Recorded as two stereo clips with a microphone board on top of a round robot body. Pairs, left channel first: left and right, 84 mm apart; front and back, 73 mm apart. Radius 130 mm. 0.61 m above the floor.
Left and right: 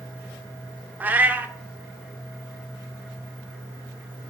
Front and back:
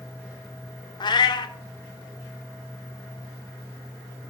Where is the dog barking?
No dog barking in this recording.